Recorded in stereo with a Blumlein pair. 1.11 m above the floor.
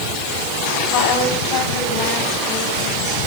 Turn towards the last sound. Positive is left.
turn(degrees=35)